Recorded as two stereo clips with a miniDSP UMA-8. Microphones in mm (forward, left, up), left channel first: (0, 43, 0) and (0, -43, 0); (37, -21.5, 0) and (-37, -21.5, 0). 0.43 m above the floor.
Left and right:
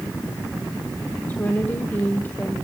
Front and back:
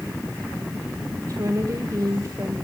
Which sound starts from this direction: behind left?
A woman speaking, at 1.3 s.